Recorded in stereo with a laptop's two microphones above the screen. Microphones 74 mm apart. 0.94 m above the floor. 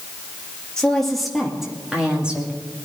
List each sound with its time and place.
0.8 s a woman speaking: 10° left (ahead or behind), 1.6 m; by 2.6 s 15° right (ahead or behind), 2.5 m